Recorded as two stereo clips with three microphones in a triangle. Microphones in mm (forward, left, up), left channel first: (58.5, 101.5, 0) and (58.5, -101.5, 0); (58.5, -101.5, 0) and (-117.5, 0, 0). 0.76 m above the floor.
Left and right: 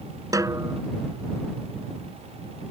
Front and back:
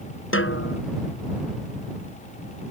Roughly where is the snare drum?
Ahead.